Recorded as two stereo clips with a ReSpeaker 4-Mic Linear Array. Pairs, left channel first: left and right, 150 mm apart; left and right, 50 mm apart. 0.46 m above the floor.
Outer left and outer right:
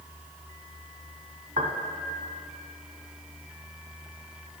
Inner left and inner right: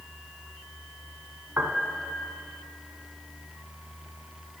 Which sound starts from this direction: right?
A piano, at 1.6 s.